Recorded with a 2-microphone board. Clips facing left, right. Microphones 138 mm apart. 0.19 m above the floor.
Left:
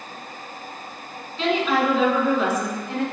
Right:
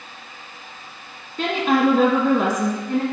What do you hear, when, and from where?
1.4 s a woman speaking: 50° right (ahead or behind), 1.7 m; by 3.0 s 45° right (ahead or behind), 1.8 m